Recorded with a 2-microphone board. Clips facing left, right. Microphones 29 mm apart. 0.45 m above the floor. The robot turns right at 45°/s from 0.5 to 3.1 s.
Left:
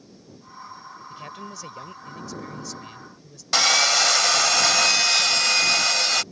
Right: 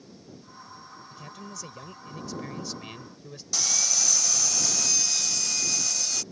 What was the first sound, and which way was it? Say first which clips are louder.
A man speaking: left 5 dB; 135° left.